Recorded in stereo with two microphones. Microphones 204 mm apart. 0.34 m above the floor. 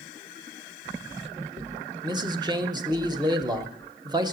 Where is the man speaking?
20° right (ahead or behind), 1.0 m.